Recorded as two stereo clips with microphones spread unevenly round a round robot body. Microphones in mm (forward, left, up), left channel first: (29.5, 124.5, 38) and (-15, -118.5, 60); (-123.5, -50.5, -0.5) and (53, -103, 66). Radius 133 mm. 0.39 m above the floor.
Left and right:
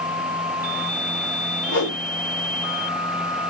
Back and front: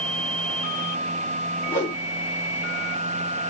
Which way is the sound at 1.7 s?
70° left.